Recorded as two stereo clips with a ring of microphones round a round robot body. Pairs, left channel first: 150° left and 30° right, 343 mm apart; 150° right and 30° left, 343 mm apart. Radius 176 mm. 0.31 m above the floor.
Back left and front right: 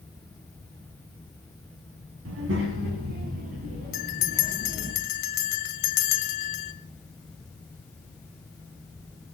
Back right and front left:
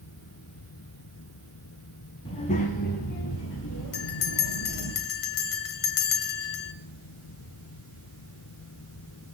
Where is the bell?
170° left, 1.5 m.